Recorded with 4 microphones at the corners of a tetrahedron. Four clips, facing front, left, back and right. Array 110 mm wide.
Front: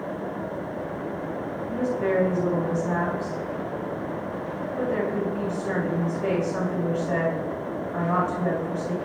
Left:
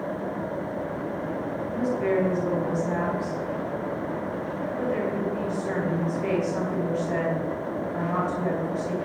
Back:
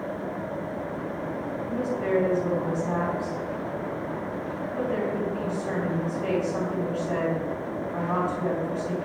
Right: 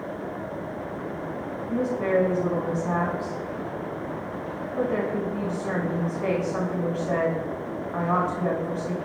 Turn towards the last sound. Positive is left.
turn(degrees=-95)